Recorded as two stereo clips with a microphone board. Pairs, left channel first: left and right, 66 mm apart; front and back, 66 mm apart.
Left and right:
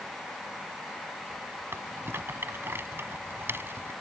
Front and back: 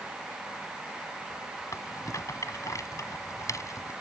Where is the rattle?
35° right.